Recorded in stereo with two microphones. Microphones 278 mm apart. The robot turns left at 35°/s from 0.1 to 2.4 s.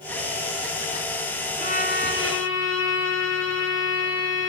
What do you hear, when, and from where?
1.6 s a violin: 25° left (ahead or behind), 2.5 m; by 4.5 s 55° left (ahead or behind), 2.5 m